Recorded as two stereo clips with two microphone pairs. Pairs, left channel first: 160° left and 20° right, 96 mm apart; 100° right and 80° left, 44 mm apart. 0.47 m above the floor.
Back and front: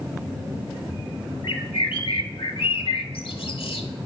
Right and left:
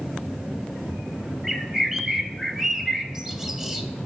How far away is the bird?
About 0.5 m.